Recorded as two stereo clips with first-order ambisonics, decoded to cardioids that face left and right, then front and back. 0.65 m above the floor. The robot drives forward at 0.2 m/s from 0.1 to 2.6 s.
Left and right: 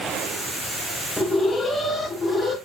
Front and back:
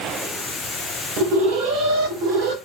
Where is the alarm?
170° left, 1.4 m.